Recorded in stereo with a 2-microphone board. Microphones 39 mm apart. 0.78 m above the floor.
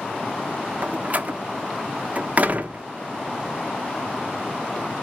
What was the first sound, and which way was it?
A door slam, 40° right (ahead or behind).